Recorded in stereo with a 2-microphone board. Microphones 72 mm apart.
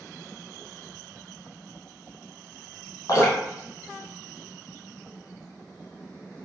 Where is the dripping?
45° left (ahead or behind), 1.5 m.